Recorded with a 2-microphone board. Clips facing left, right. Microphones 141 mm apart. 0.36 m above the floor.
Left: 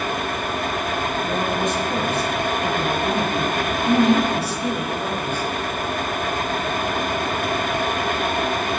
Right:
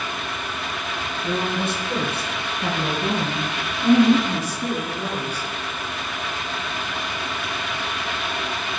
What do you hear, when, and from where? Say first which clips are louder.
1.2 s a woman speaking: right 1 dB; 75° right (ahead or behind), 4 m; by 5.5 s 35° right (ahead or behind), 3.5 m